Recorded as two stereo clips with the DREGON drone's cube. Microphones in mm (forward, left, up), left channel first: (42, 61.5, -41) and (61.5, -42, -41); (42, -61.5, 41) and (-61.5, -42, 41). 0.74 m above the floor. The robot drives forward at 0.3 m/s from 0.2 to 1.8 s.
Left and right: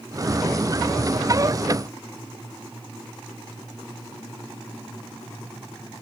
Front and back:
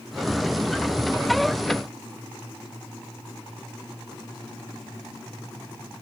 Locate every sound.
Only background noise.